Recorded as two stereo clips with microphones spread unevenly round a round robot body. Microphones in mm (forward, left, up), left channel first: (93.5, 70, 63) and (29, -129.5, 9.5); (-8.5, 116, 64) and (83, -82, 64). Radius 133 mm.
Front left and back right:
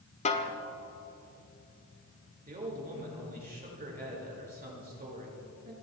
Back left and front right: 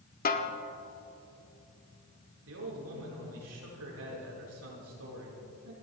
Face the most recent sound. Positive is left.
turn(degrees=-60)